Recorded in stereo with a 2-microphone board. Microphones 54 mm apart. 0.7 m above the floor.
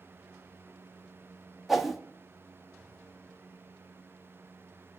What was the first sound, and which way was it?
A whoosh, centre (ahead or behind).